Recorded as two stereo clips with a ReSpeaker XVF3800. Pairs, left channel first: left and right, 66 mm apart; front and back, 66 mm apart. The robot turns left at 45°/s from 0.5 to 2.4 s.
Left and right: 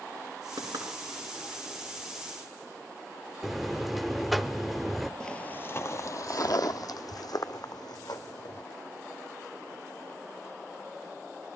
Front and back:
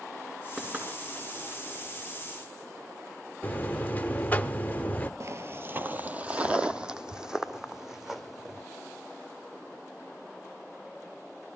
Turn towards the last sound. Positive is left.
turn(degrees=95)